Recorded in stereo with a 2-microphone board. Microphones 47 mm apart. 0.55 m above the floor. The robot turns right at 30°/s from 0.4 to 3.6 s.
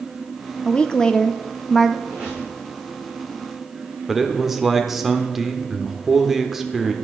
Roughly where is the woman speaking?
Left.